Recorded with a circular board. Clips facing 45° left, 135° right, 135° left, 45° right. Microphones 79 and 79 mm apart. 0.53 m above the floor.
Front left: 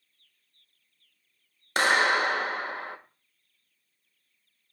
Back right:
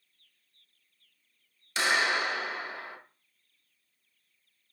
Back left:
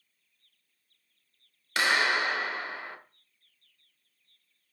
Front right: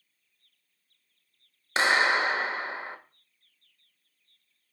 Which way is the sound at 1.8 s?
15° left.